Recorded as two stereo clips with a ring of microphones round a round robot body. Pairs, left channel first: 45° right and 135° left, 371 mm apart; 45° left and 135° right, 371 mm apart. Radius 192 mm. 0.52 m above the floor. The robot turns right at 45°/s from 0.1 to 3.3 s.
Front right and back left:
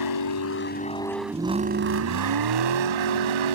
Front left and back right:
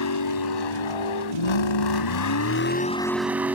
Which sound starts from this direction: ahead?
A vehicle, at 0.0 s.